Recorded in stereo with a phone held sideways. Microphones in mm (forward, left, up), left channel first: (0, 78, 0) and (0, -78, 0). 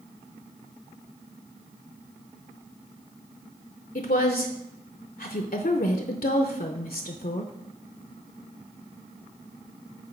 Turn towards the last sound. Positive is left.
turn(degrees=70)  # may be behind; listen again after turning